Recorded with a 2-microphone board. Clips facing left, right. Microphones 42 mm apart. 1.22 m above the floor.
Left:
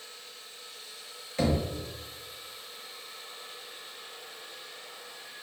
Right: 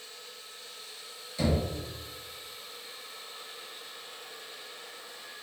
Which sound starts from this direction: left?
Knocking, at 1.4 s.